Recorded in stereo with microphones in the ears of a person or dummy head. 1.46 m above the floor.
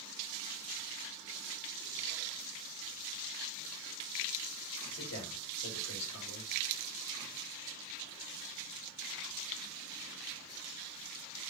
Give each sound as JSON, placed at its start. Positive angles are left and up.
{"t": 4.9, "sound": "a man speaking", "side_deg": 90, "distance_m": 5.0}